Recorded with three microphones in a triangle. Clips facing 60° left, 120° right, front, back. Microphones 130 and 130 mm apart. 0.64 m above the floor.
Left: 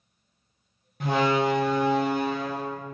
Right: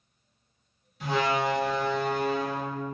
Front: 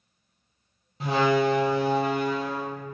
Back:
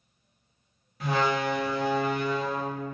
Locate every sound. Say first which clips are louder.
1.0 s a door slam: left 3 dB, front 4 dB; 60° left, 0.6 m